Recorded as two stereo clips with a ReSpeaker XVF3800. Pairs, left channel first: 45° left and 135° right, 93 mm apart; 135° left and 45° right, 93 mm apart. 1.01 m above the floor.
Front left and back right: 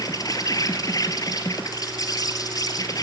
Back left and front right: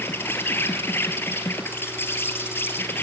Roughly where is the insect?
Left.